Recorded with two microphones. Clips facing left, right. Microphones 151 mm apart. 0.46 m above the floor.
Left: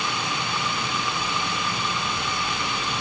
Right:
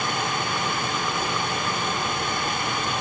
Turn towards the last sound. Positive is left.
No sound to turn to.